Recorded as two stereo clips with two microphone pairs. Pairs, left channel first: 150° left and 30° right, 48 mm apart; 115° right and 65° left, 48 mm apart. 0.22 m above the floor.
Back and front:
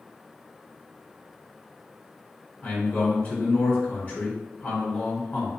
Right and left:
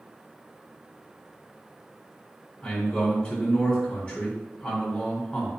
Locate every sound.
2.6 s a man speaking: straight behind, 1.7 m